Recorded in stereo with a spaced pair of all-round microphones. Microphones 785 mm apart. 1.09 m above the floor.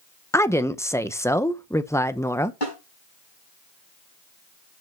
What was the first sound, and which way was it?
A woman speaking, 5° left (ahead or behind).